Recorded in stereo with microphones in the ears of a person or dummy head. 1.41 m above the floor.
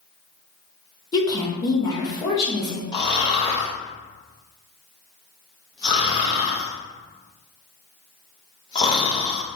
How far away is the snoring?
About 0.6 m.